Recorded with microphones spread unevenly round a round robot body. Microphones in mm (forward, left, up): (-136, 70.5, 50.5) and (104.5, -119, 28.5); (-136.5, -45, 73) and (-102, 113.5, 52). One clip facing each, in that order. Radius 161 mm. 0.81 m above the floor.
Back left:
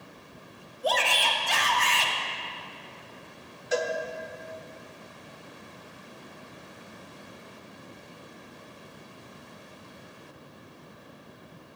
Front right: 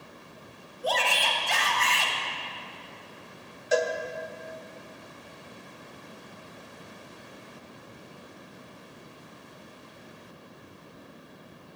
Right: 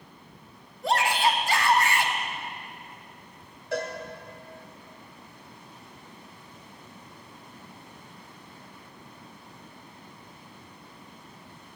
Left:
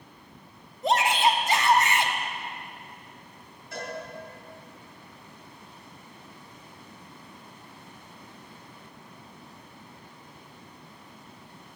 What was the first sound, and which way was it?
A shout, 145° left.